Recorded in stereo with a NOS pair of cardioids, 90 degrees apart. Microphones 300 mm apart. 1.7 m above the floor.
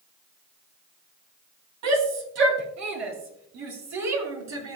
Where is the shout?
65° right, 3.5 m.